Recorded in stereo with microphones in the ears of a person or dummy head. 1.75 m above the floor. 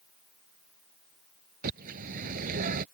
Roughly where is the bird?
Right.